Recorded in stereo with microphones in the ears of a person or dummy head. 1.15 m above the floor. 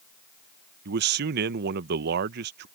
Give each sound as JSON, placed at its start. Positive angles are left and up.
{"t": 0.8, "sound": "a man speaking", "side_deg": -50}